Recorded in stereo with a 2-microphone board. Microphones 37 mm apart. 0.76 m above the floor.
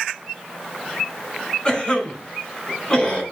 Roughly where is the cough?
Left.